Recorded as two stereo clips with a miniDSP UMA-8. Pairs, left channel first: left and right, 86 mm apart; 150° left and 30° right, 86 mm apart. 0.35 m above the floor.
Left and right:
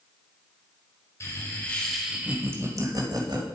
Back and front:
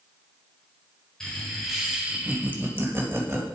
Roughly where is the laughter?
Left.